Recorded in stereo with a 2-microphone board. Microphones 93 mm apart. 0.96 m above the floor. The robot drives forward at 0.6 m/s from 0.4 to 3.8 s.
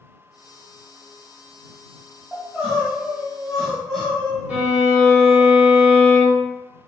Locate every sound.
2.3 s crying: centre (ahead or behind), 1.9 m
4.5 s a violin: 15° right (ahead or behind), 1.3 m